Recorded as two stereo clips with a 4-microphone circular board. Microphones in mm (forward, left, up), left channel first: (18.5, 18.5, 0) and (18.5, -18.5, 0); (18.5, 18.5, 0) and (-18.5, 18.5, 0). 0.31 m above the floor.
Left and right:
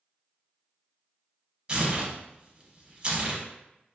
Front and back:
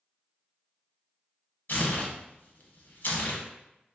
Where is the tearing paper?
25° right, 0.7 m.